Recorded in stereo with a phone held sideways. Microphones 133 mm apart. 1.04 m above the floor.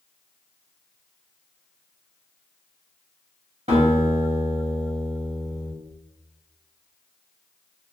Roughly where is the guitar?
Right.